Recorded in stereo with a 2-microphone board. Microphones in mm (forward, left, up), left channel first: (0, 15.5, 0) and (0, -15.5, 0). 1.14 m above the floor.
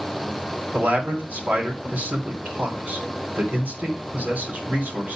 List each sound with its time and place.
0.7 s a man speaking: 75° right (ahead or behind), 3 m